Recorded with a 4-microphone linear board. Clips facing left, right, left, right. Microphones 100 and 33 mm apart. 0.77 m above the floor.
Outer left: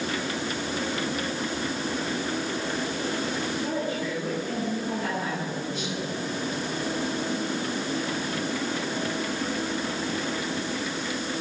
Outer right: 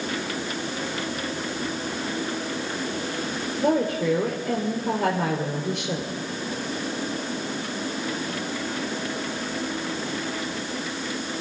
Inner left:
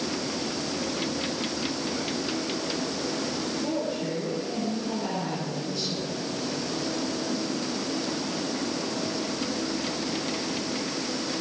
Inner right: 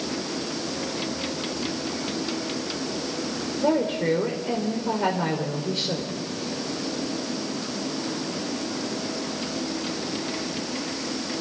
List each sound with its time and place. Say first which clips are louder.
3.6 s a woman speaking: outer right 6 dB, inner right 10 dB; 70° right (ahead or behind), 3 m